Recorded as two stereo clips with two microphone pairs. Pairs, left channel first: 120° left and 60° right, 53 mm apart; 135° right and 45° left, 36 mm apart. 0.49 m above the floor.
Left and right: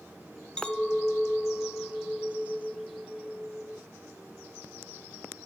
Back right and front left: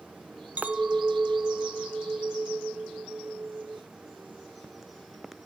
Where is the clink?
45° left, 0.6 m.